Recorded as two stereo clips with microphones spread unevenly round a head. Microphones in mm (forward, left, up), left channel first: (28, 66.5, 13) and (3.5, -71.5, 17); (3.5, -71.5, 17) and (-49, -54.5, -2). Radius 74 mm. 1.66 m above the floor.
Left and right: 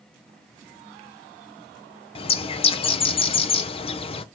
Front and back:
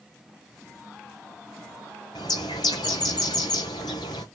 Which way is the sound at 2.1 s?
25° left.